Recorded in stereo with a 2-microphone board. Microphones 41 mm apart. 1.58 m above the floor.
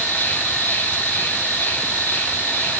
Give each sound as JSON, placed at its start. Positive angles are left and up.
{"t": 0.0, "sound": "an insect", "side_deg": 55, "distance_m": 1.9}